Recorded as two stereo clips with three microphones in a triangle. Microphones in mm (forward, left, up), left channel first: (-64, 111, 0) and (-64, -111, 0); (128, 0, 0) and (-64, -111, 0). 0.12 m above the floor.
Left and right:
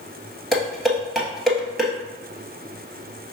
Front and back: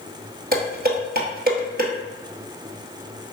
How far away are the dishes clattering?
About 1.4 m.